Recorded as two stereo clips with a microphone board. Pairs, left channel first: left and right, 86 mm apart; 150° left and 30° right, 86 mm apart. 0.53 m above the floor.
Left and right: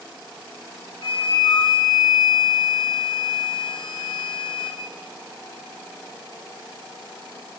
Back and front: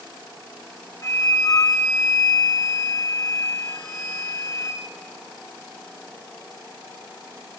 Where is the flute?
95° left, 2 m.